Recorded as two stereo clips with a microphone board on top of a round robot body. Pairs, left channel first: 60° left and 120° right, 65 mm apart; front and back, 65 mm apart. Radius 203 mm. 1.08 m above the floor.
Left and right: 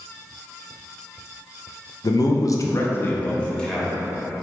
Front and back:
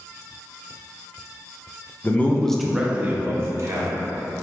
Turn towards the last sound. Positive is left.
turn(degrees=145)